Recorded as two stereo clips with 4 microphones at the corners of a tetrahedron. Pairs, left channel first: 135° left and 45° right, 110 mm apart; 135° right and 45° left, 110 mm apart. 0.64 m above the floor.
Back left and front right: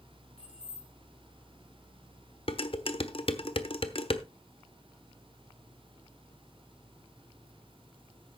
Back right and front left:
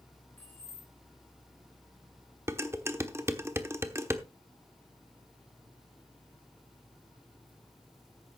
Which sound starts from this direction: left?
Dishes clattering, at 2.5 s.